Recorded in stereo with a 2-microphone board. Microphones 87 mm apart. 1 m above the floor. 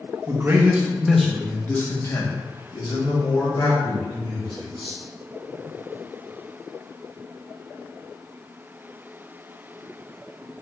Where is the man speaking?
30° right (ahead or behind), 0.9 m; by 5.0 s 70° left (ahead or behind), 2 m.